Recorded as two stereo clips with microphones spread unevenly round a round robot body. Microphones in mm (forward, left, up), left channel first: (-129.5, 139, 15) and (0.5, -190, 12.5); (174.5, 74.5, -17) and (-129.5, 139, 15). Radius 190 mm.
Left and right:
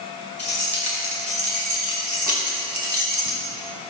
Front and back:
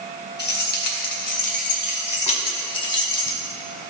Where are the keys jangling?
10° left, 4 m; by 3.4 s 5° right, 2 m.